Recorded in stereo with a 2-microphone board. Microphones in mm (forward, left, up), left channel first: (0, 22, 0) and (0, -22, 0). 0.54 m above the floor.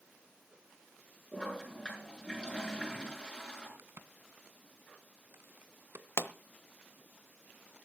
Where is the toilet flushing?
20° left (ahead or behind), 7 m.